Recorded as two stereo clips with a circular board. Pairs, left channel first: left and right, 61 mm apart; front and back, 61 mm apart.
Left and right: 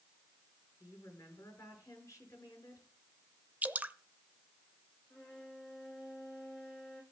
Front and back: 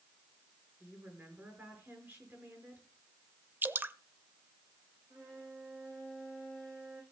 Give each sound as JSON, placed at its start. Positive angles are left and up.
{"t": 0.8, "sound": "a woman speaking", "azimuth_deg": 125, "distance_m": 5.5}
{"t": 3.6, "sound": "dripping", "azimuth_deg": -140, "distance_m": 0.5}
{"t": 5.1, "sound": "a violin", "azimuth_deg": 155, "distance_m": 6.5}